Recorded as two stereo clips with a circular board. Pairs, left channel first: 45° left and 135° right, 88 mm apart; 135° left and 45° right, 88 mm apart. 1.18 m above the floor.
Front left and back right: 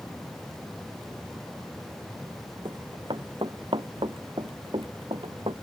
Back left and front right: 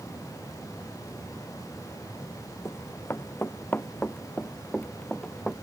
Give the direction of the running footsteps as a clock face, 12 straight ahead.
6 o'clock.